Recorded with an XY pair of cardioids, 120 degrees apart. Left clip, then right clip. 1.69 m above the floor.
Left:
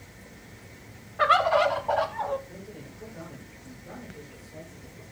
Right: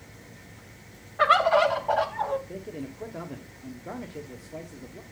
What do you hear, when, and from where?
1.2 s a bird: 5° right, 1.1 m
2.5 s a man speaking: 60° right, 1.2 m